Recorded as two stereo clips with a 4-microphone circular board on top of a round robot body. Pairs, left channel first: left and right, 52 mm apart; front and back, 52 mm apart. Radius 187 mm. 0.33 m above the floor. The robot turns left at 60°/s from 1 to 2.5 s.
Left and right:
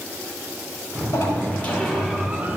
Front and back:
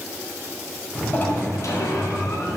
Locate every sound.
1.1 s a sliding door: 60° left, 1.8 m; by 2.6 s 20° right, 1.8 m